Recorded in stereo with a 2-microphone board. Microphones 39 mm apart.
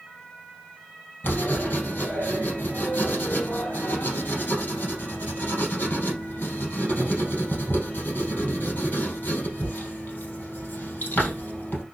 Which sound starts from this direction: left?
Writing, at 1.2 s.